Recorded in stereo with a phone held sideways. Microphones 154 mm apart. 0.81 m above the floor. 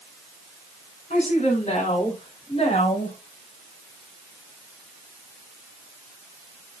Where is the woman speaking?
50° left (ahead or behind), 5 m; by 3.2 s 40° left (ahead or behind), 6 m.